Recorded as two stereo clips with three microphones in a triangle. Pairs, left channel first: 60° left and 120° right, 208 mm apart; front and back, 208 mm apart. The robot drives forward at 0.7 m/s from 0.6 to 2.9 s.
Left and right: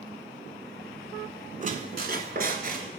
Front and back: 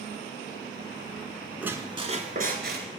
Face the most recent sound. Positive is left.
turn(degrees=-160)